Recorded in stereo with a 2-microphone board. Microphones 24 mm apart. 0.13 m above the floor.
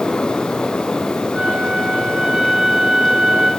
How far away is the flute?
About 5 m.